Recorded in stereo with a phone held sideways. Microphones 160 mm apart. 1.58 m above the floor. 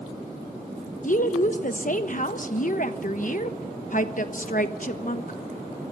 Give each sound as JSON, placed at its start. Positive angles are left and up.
{"t": 1.0, "sound": "a woman speaking", "side_deg": 55, "distance_m": 1.2}